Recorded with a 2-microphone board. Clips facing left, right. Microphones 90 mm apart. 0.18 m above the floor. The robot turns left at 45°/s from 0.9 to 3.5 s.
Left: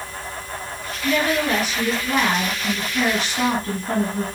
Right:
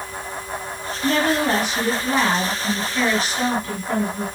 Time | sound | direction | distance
1.0 | a woman speaking | 105° right | 4.5 m